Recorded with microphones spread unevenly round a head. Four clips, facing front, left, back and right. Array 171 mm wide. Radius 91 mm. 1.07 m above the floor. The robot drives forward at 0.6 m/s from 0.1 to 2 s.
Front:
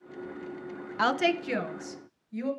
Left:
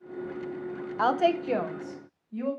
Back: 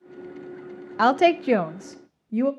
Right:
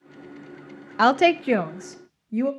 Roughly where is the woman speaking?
Right.